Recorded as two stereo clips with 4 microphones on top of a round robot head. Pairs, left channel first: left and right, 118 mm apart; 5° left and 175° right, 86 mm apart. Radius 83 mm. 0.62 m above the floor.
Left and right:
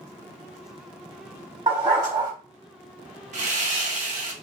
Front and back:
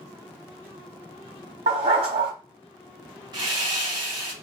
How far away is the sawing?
About 0.8 m.